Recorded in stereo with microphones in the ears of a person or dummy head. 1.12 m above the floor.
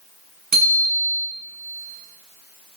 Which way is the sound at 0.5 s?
40° right (ahead or behind).